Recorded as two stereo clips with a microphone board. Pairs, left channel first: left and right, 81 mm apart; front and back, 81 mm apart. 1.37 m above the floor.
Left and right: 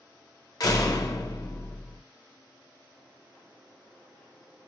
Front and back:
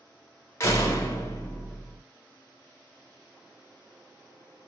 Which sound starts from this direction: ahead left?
A door slam, at 0.6 s.